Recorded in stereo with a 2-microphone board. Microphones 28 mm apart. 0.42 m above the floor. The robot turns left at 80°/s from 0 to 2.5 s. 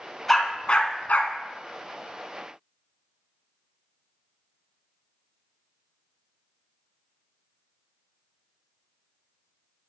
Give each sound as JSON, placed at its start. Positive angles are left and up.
{"t": 0.3, "sound": "a dog barking", "side_deg": 5, "distance_m": 1.2}